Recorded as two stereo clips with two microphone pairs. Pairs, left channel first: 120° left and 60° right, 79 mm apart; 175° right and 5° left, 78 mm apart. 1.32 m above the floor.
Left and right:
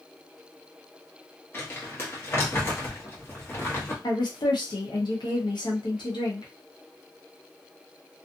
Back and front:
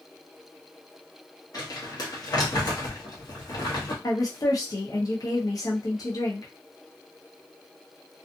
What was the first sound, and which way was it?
Crumpling, 175° left.